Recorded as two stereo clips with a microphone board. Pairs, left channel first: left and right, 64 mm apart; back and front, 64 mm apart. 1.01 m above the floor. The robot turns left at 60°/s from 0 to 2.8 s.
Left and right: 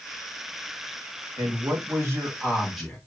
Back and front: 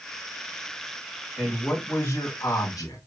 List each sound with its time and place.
1.4 s a man speaking: 90° right, 1.5 m; by 3.0 s straight behind, 1.5 m